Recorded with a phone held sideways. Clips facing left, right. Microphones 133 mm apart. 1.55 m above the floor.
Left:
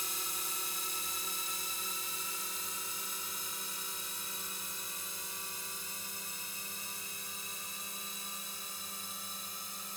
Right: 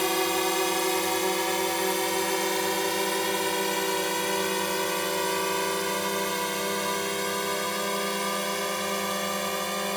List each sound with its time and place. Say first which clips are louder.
0.0 s a drone: right 22 dB; 80° right